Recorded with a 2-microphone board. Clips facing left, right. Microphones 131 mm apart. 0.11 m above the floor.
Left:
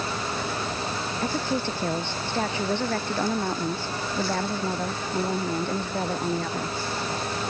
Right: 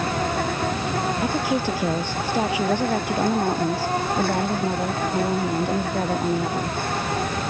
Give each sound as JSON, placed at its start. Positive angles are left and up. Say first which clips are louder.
{"t": 0.0, "sound": "an insect", "louder": "right 6 dB", "side_deg": -60}
{"t": 1.2, "sound": "a woman speaking", "louder": "right 1 dB", "side_deg": -10}